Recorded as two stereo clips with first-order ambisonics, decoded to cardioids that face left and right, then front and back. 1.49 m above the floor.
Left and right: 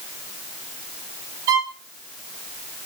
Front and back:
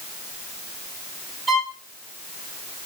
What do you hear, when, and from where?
1.5 s a violin: 105° right, 6.5 m